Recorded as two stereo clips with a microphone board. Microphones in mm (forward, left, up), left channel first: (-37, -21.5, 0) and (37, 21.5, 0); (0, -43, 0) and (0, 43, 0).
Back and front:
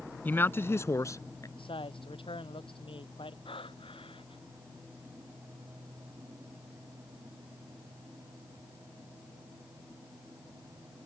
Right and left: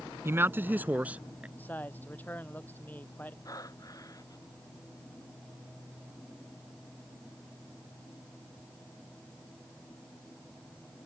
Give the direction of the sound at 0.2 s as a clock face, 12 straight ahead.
7 o'clock.